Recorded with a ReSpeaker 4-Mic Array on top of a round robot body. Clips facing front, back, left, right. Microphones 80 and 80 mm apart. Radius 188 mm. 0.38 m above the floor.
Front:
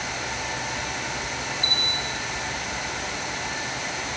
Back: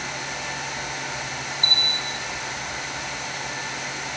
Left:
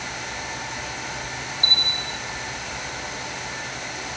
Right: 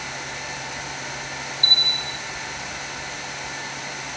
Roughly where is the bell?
Behind right.